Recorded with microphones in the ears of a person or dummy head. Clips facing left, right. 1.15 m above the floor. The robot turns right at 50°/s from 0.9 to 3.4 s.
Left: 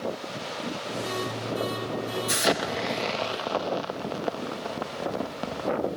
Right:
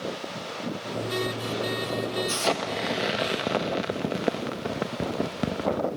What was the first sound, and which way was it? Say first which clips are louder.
An explosion: left 1 dB; 155° left.